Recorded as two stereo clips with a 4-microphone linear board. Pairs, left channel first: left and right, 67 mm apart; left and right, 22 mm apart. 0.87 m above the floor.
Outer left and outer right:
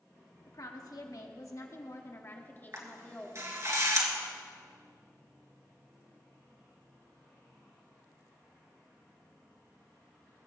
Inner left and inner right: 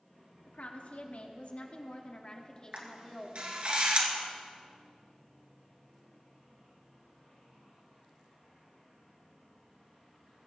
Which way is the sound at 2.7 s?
45° right (ahead or behind).